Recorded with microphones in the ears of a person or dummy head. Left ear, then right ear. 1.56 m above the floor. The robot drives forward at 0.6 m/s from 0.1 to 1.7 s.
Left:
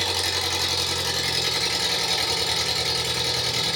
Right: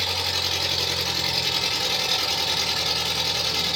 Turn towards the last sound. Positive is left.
turn(degrees=45)  # may be behind; listen again after turning